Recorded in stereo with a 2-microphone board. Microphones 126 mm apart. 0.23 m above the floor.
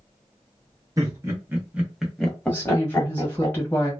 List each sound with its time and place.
1.0 s laughter: 25° right (ahead or behind), 1.3 m; by 3.5 s 30° left (ahead or behind), 1.3 m
2.5 s a woman speaking: 15° left (ahead or behind), 1.4 m